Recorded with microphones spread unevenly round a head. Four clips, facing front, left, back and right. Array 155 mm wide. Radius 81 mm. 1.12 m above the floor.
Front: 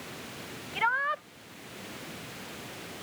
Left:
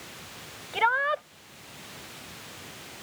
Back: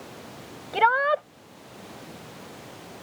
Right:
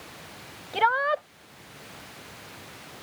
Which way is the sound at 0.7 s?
165° right.